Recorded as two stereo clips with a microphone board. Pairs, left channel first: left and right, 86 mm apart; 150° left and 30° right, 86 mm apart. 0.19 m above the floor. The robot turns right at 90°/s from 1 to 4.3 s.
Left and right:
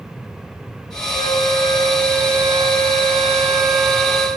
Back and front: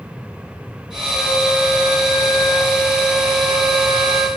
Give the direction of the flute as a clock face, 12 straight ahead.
8 o'clock.